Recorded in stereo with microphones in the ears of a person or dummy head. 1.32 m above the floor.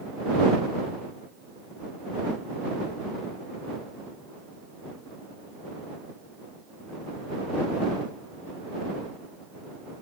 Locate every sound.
Only background noise.